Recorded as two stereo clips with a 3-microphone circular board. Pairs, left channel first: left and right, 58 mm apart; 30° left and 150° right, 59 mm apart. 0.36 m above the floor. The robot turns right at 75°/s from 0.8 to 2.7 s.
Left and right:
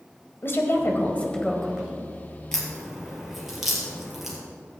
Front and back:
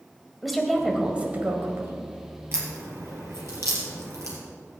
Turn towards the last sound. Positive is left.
turn(degrees=-175)